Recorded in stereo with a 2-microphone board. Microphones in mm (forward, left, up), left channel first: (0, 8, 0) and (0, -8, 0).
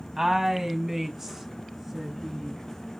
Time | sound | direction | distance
0.2 | a woman speaking | 20° right (ahead or behind) | 1.3 m